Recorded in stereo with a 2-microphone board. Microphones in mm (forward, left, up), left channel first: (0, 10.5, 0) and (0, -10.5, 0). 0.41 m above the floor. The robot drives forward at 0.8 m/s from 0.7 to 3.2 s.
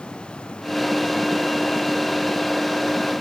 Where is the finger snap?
No finger snap in this recording.